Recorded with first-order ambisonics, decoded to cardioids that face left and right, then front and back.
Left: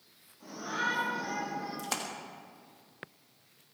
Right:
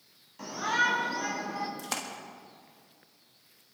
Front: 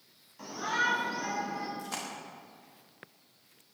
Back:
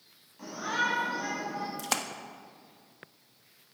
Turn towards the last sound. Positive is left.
turn(degrees=180)